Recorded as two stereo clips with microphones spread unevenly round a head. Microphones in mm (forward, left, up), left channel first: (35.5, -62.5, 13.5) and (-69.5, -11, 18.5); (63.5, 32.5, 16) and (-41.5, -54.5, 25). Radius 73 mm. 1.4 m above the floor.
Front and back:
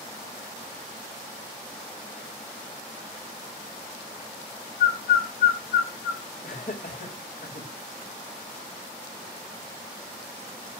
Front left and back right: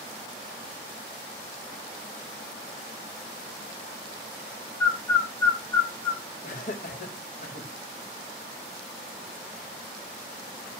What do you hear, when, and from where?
4.8 s a bird: 30° right, 3.5 m
6.4 s laughter: 5° left, 4 m